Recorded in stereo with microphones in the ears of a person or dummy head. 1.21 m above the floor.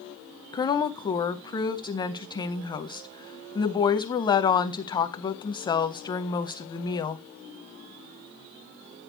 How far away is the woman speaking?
About 0.7 m.